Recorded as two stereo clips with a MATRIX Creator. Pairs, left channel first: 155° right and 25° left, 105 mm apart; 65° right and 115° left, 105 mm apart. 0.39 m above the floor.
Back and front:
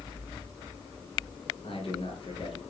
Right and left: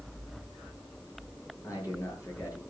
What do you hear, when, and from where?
1.6 s a man speaking: 125° right, 8.5 m